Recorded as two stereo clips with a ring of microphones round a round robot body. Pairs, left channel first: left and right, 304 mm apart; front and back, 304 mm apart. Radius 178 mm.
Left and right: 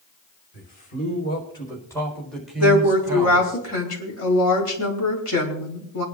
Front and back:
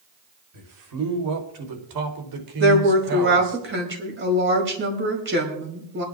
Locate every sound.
0.5 s a man speaking: 155° left, 4.5 m; by 3.6 s 160° right, 4 m
2.6 s a woman speaking: 130° left, 4.5 m